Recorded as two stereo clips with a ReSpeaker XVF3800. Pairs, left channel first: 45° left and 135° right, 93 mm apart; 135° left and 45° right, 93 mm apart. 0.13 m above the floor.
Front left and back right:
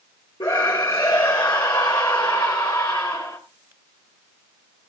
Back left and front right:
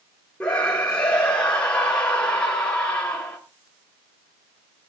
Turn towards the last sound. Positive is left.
turn(degrees=55)